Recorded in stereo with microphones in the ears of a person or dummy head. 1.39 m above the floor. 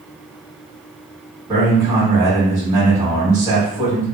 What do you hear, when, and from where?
1.5 s a man speaking: 25° right (ahead or behind), 1.4 m